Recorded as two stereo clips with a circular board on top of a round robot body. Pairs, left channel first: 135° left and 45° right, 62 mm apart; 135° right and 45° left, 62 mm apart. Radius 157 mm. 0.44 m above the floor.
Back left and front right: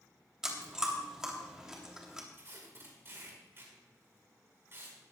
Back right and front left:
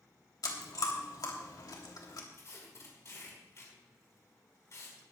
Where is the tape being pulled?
95° right, 5 m.